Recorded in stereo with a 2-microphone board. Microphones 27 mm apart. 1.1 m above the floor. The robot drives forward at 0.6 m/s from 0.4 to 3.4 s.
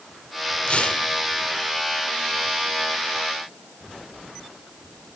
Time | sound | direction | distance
0.7 | tearing paper | 40° left (ahead or behind) | 1.2 m